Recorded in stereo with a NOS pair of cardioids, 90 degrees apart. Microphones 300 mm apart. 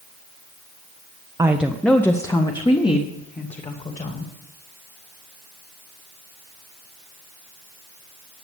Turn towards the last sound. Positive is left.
turn(degrees=25)